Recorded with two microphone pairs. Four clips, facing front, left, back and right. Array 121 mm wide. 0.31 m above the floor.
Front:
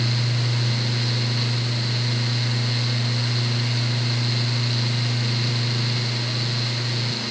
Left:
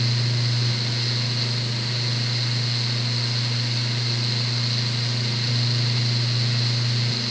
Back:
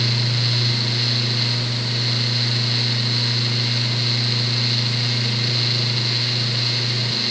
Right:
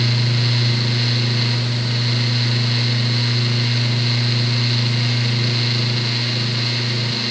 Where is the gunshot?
I don't hear a gunshot.